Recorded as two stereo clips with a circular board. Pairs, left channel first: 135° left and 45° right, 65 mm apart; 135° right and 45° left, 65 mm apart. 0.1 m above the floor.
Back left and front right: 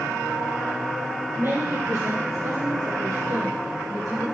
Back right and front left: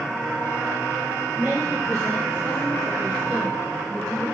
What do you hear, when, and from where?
1.4 s a woman speaking: 40° right, 3 m